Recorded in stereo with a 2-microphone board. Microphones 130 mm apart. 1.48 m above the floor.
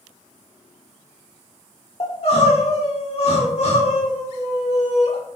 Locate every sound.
2.0 s crying: 55° left (ahead or behind), 2.5 m